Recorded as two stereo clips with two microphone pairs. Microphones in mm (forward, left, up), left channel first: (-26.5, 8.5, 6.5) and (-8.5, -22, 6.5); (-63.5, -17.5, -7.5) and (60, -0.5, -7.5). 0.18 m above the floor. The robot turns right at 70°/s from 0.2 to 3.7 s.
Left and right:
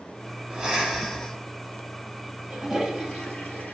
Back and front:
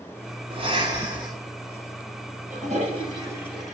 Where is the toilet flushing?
15° left, 2.5 m; by 3.7 s 100° left, 2.5 m.